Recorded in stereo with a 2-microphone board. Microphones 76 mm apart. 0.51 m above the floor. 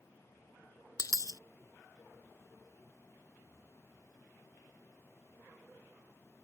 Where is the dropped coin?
55° left (ahead or behind).